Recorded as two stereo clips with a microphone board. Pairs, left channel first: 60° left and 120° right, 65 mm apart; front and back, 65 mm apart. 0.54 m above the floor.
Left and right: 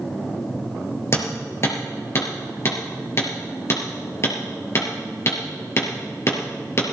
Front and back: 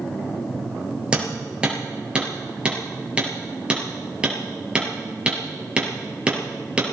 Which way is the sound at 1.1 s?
105° left.